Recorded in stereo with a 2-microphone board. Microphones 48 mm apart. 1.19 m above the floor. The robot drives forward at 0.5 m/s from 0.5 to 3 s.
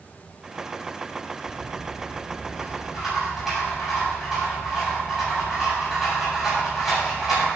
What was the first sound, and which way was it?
A rattle, centre (ahead or behind).